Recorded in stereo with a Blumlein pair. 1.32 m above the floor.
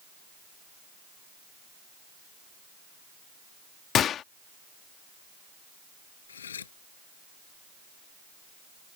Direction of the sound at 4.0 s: 30° left.